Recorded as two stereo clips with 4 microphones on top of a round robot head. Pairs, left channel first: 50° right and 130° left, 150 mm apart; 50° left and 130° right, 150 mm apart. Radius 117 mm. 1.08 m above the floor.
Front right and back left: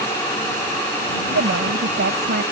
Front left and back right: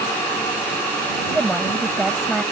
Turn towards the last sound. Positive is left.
turn(degrees=140)